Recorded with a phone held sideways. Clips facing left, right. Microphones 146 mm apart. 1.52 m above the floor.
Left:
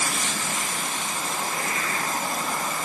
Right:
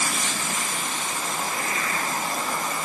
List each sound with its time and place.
Only background noise.